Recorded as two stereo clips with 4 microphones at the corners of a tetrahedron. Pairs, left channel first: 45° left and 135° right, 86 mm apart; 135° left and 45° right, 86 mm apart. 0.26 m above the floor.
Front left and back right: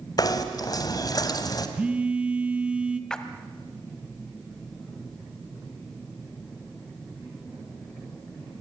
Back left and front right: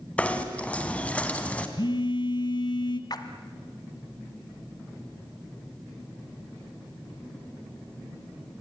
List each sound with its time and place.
0.2 s knocking: 65° left, 1.9 m
1.8 s a phone buzzing: 150° left, 1.4 m
3.1 s a splash: 125° left, 1.4 m